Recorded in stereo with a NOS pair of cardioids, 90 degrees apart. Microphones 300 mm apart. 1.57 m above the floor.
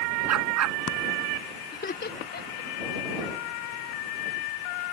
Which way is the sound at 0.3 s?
60° right.